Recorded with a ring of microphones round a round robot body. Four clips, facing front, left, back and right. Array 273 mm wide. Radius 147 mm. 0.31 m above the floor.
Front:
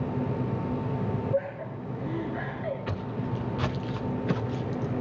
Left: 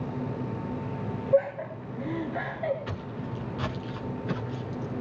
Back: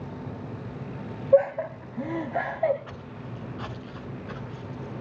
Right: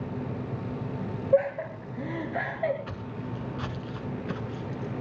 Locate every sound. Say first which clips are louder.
1.3 s laughter: right 1 dB, back 9 dB; 165° right, 2.5 m
2.9 s footsteps: left 1 dB, front 8 dB; 10° left, 2 m; by 4.9 s straight ahead, 3.5 m